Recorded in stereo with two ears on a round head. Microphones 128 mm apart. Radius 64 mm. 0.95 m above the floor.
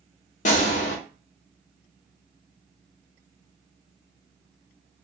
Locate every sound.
0.5 s a gunshot: 55° left (ahead or behind), 0.6 m